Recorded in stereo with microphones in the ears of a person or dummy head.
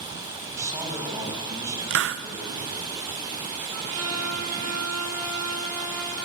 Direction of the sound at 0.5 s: 20° right (ahead or behind).